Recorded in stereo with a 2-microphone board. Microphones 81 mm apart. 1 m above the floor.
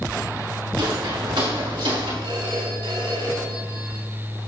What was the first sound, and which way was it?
Footsteps, 70° right (ahead or behind).